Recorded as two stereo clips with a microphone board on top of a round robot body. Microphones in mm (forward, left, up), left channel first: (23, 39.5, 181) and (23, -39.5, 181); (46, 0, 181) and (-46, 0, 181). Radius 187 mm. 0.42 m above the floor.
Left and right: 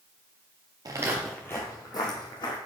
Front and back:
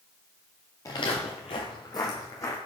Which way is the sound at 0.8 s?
55° right.